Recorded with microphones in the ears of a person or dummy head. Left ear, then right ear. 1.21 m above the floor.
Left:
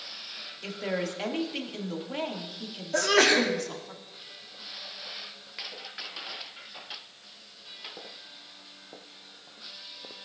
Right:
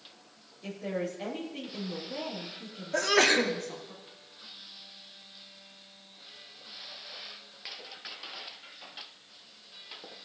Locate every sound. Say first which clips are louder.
0.6 s a woman speaking: left 2 dB; 45° left (ahead or behind), 2 m
2.9 s a sneeze: left 2 dB; 10° right (ahead or behind), 1.2 m